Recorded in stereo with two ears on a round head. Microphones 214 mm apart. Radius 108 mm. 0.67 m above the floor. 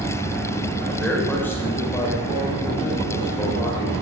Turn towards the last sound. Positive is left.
turn(degrees=25)  # may be behind; listen again after turning